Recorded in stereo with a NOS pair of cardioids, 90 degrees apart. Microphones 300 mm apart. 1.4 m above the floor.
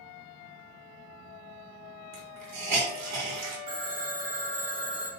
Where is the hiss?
60° right, 1.5 m.